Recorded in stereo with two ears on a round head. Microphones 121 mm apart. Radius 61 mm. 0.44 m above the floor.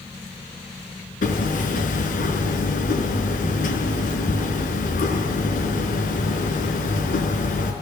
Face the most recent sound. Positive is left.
turn(degrees=70)  # may be behind; listen again after turning